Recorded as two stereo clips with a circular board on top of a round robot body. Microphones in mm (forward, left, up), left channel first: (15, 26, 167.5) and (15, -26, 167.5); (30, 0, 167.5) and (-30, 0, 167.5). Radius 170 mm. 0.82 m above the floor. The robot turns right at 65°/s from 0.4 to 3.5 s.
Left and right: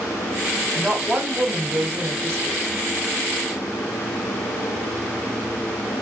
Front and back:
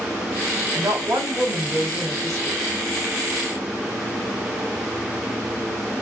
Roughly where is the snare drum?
I don't hear a snare drum.